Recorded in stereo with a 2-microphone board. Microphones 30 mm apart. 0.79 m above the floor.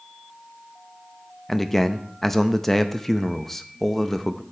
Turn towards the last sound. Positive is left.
turn(degrees=10)  # may be behind; listen again after turning